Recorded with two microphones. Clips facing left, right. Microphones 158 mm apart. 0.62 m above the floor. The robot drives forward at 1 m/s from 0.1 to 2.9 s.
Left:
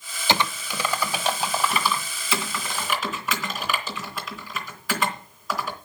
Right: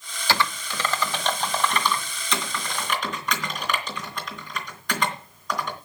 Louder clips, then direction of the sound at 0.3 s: Left 1 dB; 20° left (ahead or behind).